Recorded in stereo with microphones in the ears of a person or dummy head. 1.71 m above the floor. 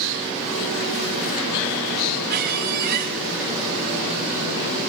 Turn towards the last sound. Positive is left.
turn(degrees=-50)  # may be behind; listen again after turning